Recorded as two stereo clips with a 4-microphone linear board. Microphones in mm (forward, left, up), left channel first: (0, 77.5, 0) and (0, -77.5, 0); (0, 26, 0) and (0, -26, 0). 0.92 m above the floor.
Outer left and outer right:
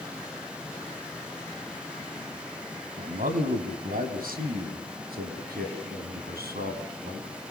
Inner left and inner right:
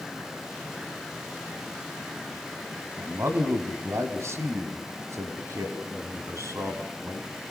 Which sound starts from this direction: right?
A man speaking, at 3.0 s.